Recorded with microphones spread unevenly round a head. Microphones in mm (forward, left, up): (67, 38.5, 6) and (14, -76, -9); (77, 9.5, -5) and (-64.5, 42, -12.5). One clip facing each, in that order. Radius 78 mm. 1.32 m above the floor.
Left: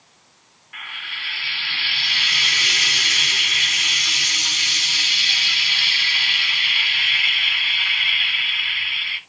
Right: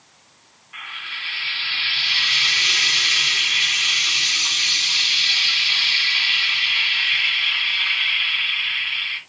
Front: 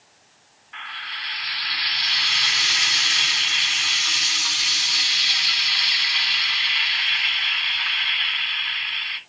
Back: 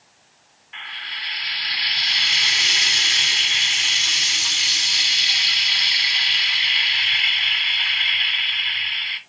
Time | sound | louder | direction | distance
0.7 | frying | left 1 dB, front 1 dB | 105° left | 2 m